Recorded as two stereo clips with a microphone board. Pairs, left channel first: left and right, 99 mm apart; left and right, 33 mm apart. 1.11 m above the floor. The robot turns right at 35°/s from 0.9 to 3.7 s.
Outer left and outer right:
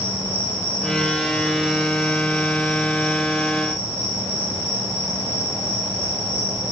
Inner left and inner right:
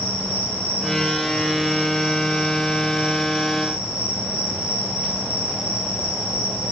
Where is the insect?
120° left, 3 m; by 6.7 s 140° right, 3 m.